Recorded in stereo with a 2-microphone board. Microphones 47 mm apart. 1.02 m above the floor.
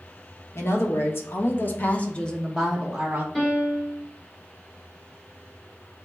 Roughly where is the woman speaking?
Left.